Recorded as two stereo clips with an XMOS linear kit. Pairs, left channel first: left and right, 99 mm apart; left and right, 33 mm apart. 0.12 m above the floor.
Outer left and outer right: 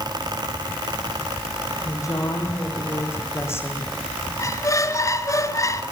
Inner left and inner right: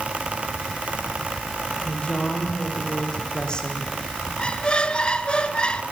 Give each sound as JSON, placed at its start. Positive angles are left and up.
{"t": 1.9, "sound": "a woman speaking", "side_deg": 35, "distance_m": 6.5}
{"t": 4.4, "sound": "a squeak", "side_deg": 35, "distance_m": 1.1}